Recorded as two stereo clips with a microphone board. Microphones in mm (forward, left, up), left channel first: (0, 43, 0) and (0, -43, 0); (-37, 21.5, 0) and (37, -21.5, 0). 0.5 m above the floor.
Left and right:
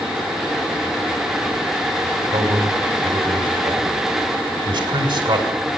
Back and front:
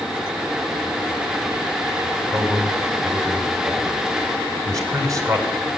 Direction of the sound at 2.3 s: 80° right.